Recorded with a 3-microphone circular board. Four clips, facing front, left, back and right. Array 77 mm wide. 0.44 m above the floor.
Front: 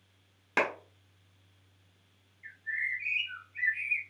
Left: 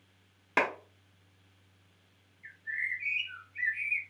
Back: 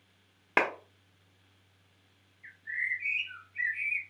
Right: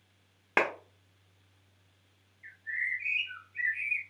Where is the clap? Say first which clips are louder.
Right 1 dB, back 2 dB; 140° right, 0.7 m.